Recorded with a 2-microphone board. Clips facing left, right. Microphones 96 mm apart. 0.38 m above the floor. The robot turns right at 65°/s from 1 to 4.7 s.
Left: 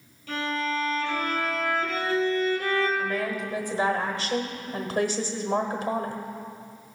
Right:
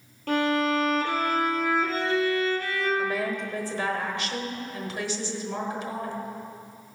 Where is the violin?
60° right, 1.8 m; by 2.9 s 60° left, 1.8 m.